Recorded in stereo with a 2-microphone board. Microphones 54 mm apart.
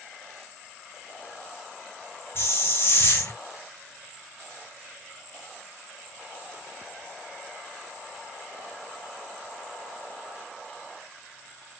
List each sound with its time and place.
2.4 s a hiss: 50° left (ahead or behind), 5.5 m